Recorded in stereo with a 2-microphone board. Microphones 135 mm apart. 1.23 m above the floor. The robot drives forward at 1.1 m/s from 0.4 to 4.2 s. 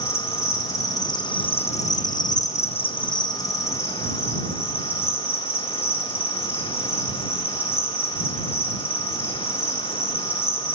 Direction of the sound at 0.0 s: 20° left (ahead or behind).